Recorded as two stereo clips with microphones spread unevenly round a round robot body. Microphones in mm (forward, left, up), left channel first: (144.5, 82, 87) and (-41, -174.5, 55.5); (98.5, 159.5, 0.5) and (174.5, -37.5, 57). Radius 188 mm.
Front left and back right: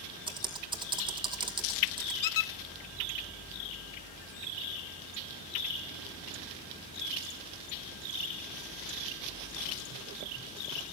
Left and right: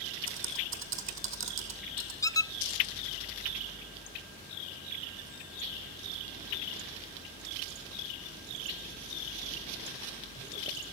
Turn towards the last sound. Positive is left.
turn(degrees=30)